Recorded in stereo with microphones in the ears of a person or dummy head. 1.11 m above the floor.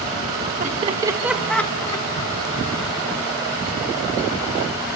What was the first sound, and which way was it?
Laughter, 40° right (ahead or behind).